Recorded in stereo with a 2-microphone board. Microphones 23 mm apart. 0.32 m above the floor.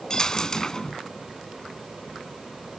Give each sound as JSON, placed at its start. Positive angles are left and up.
{"t": 0.1, "sound": "a dropped coin", "side_deg": 25, "distance_m": 0.7}